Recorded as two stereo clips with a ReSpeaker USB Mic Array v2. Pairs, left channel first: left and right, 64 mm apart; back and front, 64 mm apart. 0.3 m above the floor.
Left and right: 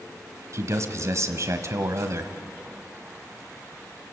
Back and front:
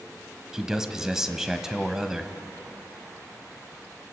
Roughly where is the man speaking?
Right.